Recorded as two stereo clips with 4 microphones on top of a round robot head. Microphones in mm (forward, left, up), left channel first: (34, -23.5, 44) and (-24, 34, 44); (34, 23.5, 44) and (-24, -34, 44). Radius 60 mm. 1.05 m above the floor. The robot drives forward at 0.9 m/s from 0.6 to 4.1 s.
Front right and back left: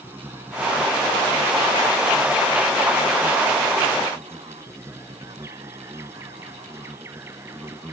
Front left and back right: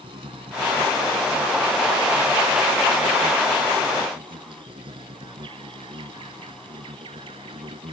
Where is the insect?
160° right.